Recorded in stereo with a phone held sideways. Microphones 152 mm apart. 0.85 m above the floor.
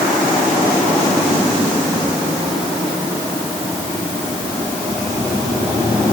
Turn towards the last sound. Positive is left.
No sound to turn to.